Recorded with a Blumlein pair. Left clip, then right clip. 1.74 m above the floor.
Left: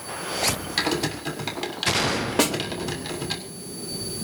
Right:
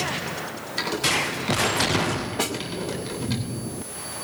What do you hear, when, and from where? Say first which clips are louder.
0.8 s typing on a keyboard: right 5 dB; 40° left, 7 m
2.4 s a snare drum: left 6 dB; 30° left, 3.5 m